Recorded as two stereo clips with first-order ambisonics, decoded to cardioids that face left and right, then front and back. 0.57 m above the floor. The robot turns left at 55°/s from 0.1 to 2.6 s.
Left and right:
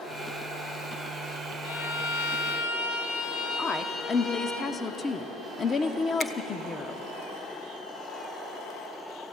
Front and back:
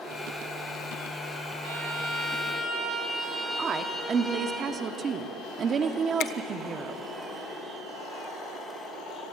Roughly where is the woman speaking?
Behind left.